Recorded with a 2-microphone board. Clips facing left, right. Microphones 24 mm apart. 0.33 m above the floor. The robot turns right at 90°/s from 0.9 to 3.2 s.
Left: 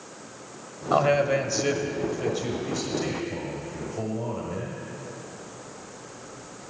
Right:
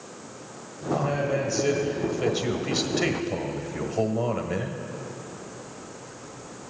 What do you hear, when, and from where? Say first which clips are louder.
0.9 s a man speaking: left 5 dB; 95° left, 1.3 m; by 4.8 s 60° right, 1.3 m